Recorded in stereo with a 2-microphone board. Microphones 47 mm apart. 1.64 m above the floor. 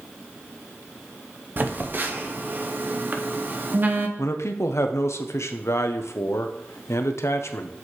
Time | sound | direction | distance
1.6 | a phone buzzing | 45° right (ahead or behind) | 0.8 m
4.2 | a man speaking | 85° left | 0.8 m